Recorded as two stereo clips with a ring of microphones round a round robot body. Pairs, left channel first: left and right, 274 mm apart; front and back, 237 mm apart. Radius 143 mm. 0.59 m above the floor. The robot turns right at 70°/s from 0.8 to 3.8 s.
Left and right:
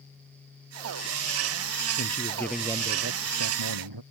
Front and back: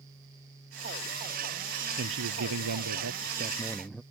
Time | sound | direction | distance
2.0 | a man speaking | 140° left | ?